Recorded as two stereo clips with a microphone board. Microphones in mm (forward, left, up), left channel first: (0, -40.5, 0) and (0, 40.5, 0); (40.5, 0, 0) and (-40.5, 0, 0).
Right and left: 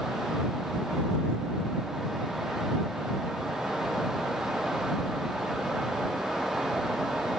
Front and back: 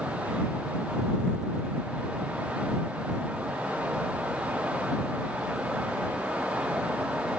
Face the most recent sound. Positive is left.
No sound to turn to.